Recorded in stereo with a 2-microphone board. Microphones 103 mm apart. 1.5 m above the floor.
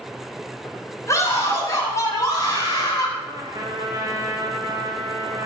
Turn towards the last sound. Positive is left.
turn(degrees=-40)  # may be behind; listen again after turning